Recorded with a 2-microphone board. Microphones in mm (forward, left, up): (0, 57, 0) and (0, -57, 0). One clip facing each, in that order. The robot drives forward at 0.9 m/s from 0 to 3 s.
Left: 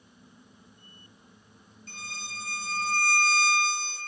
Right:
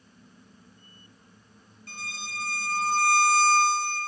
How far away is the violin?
About 2 m.